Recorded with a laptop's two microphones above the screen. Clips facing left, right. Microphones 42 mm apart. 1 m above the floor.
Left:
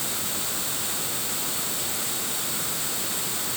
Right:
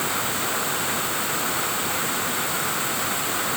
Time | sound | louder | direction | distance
0.0 | running water | right 7 dB | 40° right (ahead or behind) | ?